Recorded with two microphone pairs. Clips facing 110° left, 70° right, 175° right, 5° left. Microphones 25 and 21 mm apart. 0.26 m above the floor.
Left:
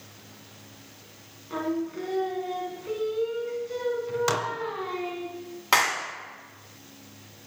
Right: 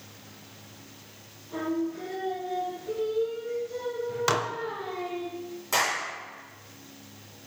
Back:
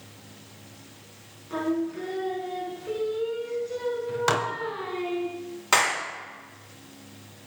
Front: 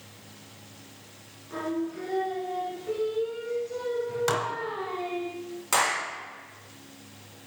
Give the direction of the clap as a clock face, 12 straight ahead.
8 o'clock.